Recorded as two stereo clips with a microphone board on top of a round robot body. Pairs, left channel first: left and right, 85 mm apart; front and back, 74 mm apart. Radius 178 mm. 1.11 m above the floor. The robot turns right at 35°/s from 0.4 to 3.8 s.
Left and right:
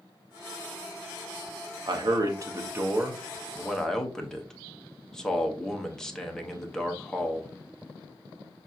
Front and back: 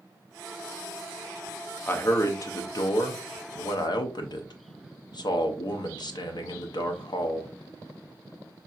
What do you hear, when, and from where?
1.9 s a man speaking: 60° right, 0.7 m; by 7.5 s 5° left, 0.7 m